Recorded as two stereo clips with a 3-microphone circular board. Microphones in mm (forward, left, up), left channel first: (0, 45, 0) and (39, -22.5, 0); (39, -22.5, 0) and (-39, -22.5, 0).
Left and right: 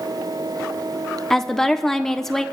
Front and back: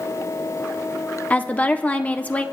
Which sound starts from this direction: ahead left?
A woman speaking, at 1.3 s.